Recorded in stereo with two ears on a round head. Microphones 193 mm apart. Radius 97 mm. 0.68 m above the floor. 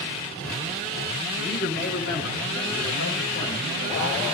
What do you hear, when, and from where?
1.4 s a man speaking: 50° left (ahead or behind), 8 m; by 4.2 s 45° left (ahead or behind), 6 m